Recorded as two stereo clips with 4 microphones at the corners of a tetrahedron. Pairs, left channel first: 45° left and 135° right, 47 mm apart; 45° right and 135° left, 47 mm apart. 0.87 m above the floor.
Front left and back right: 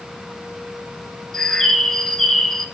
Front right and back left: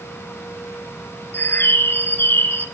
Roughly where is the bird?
Ahead right.